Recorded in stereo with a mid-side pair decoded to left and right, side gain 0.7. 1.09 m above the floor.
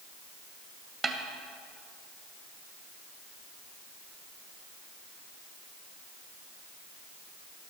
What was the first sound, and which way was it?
A snare drum, 25° right.